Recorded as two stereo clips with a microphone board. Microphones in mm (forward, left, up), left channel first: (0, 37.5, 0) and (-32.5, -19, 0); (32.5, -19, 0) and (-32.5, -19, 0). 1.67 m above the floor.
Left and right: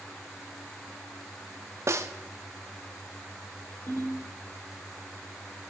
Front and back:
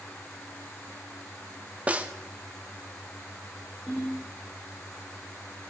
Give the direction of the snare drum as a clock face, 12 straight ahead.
4 o'clock.